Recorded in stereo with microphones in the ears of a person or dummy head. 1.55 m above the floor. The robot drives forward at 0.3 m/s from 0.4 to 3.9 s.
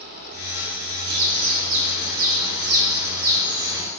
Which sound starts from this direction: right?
A bird, at 1.1 s.